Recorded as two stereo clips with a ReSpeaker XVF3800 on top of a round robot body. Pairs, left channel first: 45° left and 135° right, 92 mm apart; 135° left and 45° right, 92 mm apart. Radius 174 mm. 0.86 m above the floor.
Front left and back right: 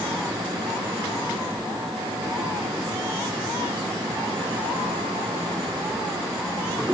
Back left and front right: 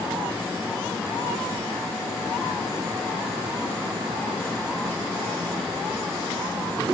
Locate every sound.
Only background noise.